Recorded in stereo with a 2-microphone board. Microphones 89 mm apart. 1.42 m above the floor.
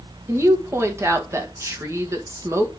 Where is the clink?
No clink in this recording.